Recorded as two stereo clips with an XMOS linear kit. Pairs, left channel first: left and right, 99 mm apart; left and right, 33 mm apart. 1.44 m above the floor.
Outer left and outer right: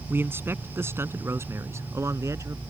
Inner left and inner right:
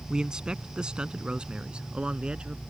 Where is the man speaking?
20° right (ahead or behind); by 2.6 s 30° right (ahead or behind).